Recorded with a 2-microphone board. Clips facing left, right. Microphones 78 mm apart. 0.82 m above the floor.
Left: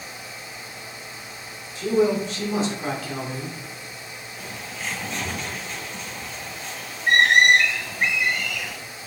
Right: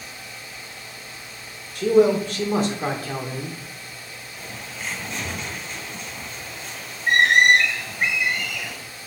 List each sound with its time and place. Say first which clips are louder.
1.8 s a man speaking: right 4 dB; 65° right (ahead or behind), 3 m; by 3.6 s 25° right (ahead or behind), 2.5 m
4.4 s a bird: left 1 dB; centre (ahead or behind), 4 m